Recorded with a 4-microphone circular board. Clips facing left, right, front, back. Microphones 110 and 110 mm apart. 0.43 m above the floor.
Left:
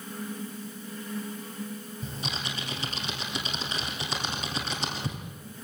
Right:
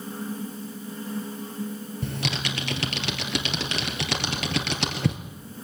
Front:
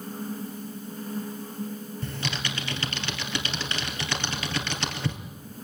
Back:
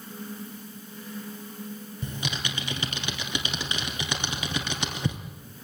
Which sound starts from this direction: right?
Typing on a keyboard, at 2.0 s.